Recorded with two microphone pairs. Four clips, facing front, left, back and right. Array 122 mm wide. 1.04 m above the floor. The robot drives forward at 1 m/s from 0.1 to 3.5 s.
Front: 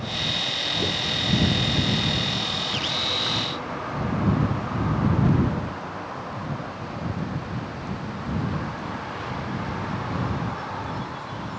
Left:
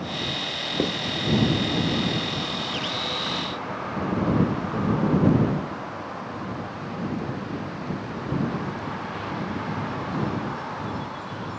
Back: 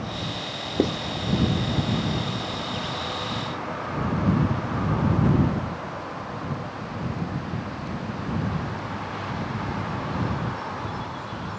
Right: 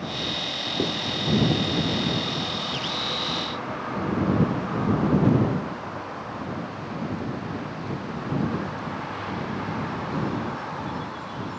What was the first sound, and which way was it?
Writing, 165° left.